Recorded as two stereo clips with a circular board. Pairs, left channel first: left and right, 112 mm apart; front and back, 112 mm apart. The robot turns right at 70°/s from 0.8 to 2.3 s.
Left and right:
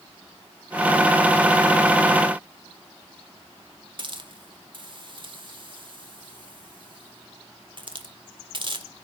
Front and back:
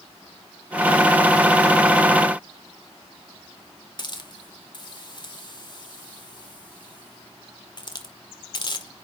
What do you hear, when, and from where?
4.0 s a hiss: 50° right, 1.6 m